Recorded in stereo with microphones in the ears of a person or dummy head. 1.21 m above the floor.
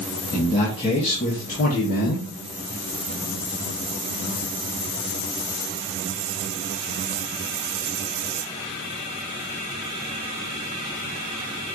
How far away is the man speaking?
About 1.6 m.